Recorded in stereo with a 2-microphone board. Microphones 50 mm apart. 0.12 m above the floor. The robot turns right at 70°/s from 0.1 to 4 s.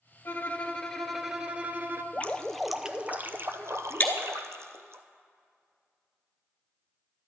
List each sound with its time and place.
0.2 s a violin: 115° left, 0.7 m; by 2.0 s 120° right, 0.7 m
2.1 s dripping: 145° left, 0.6 m; by 5.0 s 85° right, 0.6 m
4.0 s breaking glass: 35° left (ahead or behind), 1.1 m